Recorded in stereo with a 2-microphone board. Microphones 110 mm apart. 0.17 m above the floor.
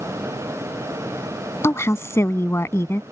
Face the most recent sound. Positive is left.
turn(degrees=25)  # may be behind; listen again after turning